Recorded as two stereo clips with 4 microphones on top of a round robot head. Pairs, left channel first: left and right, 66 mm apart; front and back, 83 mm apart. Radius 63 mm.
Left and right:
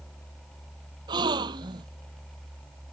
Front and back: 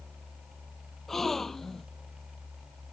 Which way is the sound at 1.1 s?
85° right.